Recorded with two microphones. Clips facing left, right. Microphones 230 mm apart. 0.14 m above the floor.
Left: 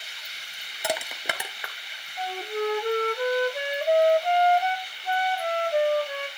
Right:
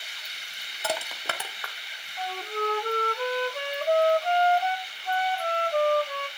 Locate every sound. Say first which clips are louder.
0.8 s crushing: left 2 dB; 15° left (ahead or behind), 1.2 m
2.2 s a flute: left 3 dB; 15° left (ahead or behind), 0.5 m